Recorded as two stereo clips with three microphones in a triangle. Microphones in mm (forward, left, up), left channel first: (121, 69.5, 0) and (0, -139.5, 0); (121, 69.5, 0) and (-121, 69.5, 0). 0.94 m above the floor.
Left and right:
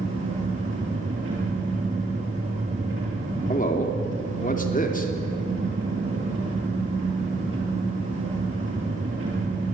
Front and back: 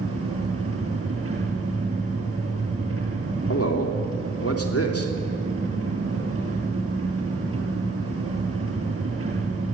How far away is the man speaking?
About 3 m.